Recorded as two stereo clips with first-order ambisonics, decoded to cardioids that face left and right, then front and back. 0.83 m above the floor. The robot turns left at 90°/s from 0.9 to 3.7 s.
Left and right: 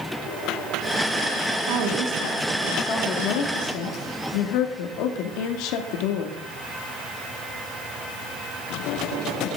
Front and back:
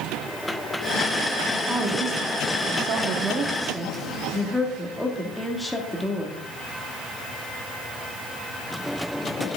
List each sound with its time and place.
1.7 s a woman speaking: 95° right, 2 m; by 6.4 s 85° left, 2 m